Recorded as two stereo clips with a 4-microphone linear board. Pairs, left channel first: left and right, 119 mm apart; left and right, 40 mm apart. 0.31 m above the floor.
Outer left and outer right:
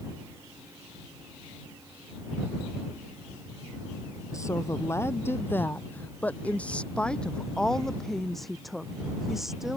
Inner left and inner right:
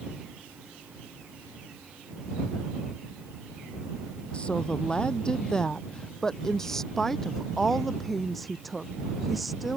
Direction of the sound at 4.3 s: 25° left (ahead or behind).